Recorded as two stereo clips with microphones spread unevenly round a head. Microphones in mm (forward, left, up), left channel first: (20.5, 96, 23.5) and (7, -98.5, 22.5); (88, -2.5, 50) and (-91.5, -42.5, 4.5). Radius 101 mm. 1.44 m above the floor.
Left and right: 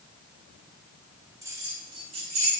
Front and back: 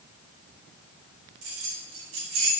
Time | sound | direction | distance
1.4 | keys jangling | 170° right | 2.5 m